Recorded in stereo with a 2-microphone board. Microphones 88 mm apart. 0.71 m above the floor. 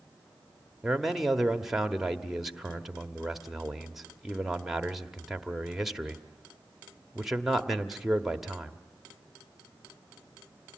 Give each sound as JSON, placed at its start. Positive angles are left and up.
{"t": 0.8, "sound": "a man speaking", "side_deg": -5, "distance_m": 1.1}